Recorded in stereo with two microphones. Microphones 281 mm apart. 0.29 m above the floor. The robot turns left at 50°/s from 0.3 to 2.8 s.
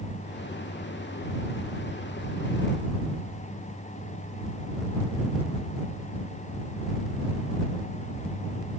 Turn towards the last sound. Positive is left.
No sound to turn to.